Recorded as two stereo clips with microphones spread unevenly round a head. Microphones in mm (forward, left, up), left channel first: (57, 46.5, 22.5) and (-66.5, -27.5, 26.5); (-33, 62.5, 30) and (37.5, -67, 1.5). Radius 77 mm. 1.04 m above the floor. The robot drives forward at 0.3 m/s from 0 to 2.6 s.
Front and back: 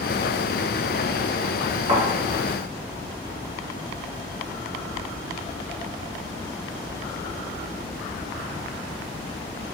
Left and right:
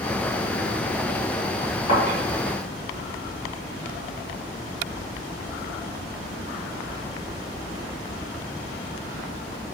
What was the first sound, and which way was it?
A thud, 165° left.